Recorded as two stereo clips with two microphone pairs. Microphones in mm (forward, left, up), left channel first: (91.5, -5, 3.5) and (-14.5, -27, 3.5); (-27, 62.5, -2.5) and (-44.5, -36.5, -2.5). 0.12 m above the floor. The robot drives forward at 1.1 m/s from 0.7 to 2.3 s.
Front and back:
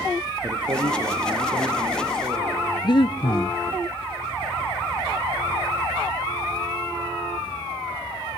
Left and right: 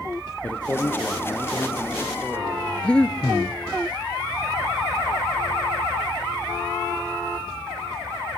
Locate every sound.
0.4 s a man speaking: 150° left, 3 m; by 2.7 s 160° left, 4.5 m
2.8 s breathing: 5° left, 0.7 m